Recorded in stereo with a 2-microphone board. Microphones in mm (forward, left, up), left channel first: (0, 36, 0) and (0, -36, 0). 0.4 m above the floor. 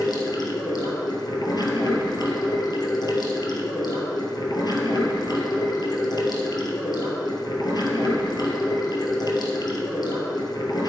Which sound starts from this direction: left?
Running water, at 0.0 s.